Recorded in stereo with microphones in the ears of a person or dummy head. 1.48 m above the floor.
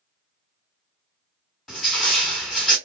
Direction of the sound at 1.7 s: Centre (ahead or behind).